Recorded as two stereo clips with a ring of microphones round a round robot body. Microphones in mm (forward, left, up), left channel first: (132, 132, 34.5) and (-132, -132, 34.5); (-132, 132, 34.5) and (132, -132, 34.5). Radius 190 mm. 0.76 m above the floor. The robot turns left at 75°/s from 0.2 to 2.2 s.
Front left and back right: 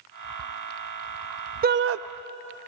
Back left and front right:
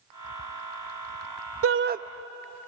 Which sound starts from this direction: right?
A shout, at 1.6 s.